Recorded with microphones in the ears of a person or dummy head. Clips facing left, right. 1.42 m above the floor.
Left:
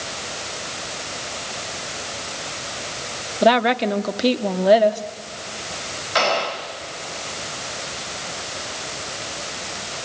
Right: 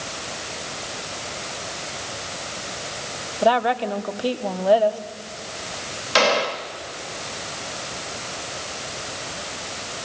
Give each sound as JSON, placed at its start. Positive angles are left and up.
{"t": 3.4, "sound": "a woman speaking", "side_deg": 25, "distance_m": 0.9}
{"t": 6.2, "sound": "a gunshot", "side_deg": -45, "distance_m": 1.2}